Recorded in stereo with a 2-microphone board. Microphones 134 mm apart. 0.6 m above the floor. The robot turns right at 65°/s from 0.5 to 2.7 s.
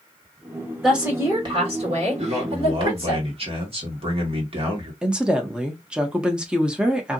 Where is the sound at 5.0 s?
5° right (ahead or behind), 0.9 m.